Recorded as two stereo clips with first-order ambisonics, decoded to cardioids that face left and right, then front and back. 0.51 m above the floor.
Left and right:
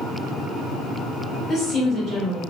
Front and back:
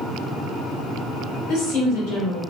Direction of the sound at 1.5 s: 25° left.